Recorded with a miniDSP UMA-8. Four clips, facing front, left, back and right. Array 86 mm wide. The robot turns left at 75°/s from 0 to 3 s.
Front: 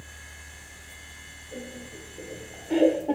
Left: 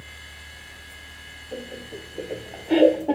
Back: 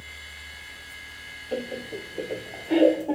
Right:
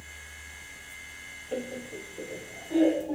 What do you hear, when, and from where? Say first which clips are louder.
1.5 s laughter: right 1 dB, back 9 dB; 165° right, 2.0 m; by 3.2 s 80° left, 2.0 m